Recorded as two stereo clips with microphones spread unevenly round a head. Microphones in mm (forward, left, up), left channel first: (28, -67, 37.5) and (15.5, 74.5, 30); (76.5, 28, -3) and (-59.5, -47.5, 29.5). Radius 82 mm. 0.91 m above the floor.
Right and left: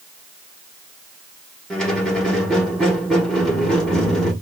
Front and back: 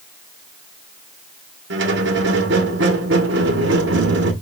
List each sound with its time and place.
1.7 s a squeak: 170° right, 1.2 m